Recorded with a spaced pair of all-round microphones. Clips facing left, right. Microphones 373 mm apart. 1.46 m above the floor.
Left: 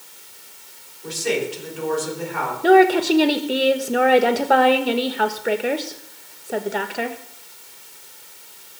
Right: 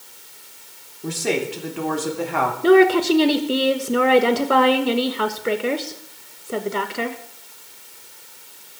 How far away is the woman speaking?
About 1.9 m.